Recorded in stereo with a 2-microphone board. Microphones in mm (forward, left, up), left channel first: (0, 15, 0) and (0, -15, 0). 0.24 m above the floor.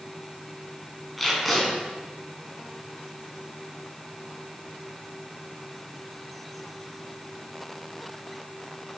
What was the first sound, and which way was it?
Tape being pulled, centre (ahead or behind).